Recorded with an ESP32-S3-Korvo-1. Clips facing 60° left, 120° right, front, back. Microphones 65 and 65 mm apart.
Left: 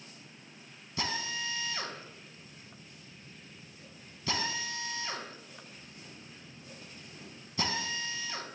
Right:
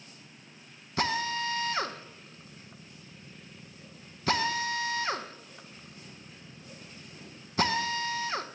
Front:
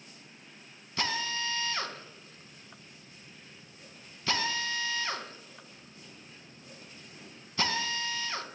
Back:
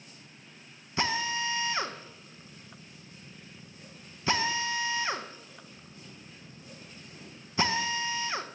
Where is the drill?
115° right, 0.5 m.